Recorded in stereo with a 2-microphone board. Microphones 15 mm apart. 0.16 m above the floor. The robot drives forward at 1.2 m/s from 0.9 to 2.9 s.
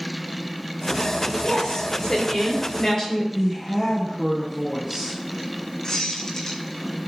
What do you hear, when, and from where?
1.4 s a woman speaking: 45° left (ahead or behind), 3 m; by 3.2 s 30° left (ahead or behind), 4 m
3.3 s a woman speaking: 10° left (ahead or behind), 3.5 m
5.8 s a squeak: 45° left (ahead or behind), 2.5 m